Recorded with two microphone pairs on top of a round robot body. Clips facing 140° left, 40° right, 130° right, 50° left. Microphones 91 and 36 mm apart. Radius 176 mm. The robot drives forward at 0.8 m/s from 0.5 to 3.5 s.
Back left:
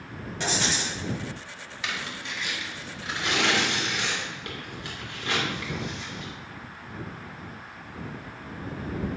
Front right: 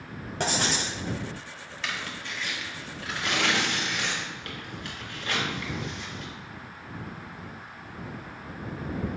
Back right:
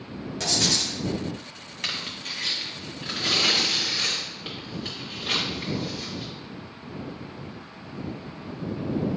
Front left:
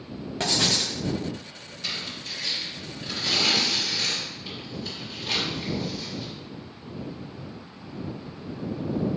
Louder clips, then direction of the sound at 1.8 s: Back left 1 dB, back right 2 dB; 140° right.